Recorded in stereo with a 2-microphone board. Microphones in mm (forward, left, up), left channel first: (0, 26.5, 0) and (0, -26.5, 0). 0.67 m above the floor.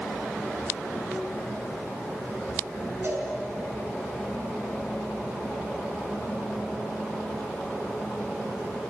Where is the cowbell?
40° right (ahead or behind), 5.5 m.